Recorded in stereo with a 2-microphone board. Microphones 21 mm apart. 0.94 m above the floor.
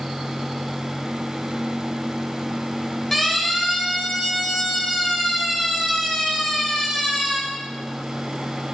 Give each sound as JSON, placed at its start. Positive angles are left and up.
{"t": 3.1, "sound": "a siren", "side_deg": 10, "distance_m": 10.0}